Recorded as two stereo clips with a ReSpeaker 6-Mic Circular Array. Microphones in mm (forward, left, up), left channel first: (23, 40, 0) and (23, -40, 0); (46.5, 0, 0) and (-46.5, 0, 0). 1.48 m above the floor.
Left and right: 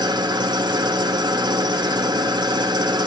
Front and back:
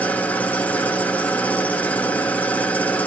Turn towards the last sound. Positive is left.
turn(degrees=-75)